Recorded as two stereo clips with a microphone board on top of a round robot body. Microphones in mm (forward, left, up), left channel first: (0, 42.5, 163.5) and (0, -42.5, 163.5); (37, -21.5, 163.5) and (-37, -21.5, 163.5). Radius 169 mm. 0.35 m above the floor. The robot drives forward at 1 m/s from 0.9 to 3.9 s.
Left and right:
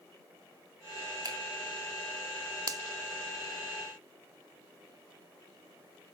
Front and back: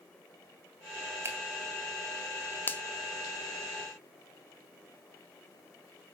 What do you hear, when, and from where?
1.2 s a finger snap: 125° right, 3 m; by 1.4 s 130° right, 3 m
2.7 s a finger snap: 55° right, 1.0 m; by 2.8 s 65° right, 1.0 m